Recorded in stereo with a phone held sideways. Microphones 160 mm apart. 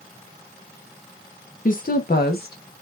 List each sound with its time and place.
1.6 s a woman speaking: 55° left (ahead or behind), 0.6 m; by 2.8 s 85° left, 1.3 m